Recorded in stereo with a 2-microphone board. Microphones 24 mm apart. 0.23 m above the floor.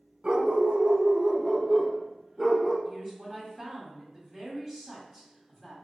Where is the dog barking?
40° right (ahead or behind), 0.9 m; by 2.8 s 5° left (ahead or behind), 1.7 m.